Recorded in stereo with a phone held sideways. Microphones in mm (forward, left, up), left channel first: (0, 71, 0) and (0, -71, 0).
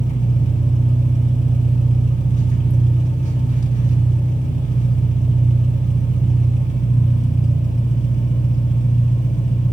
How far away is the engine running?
About 2 m.